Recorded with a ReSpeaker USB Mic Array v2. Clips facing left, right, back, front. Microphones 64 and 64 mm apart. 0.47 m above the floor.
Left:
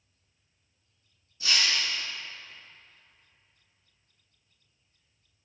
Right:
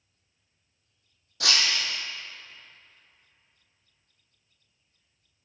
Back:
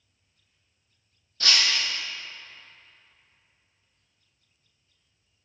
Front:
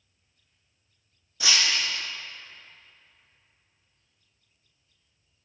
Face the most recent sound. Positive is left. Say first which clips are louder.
# right 1 dB, even
turn(degrees=-80)